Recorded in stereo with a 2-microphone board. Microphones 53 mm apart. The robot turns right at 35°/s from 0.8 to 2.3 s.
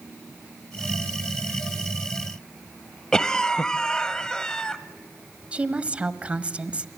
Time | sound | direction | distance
3.1 | a cough | 15° left (ahead or behind) | 0.9 m
5.5 | a woman speaking | 25° right (ahead or behind) | 1.1 m